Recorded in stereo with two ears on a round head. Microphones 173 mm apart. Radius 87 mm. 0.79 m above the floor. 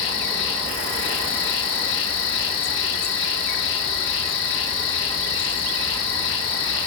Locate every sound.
0.0 s an insect: 75° left (ahead or behind), 1.2 m